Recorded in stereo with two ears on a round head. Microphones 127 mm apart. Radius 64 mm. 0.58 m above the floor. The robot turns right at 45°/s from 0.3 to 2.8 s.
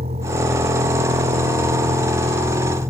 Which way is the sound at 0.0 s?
135° right.